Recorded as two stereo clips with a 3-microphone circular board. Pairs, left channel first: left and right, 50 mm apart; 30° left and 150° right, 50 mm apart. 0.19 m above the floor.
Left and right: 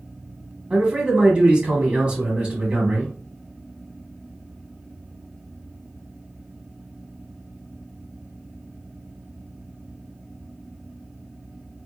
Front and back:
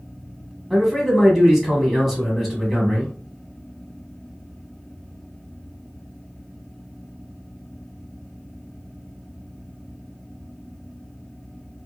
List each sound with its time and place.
0.7 s a man speaking: 70° right, 1.1 m